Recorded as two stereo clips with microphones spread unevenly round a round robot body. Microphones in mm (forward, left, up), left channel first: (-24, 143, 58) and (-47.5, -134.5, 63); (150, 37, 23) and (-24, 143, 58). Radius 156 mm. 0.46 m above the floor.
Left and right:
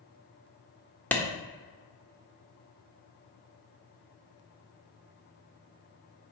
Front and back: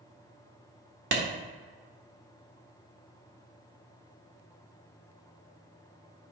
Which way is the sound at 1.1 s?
165° left.